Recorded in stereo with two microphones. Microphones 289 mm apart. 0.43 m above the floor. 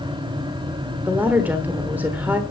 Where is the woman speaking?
5° right (ahead or behind), 1.0 m.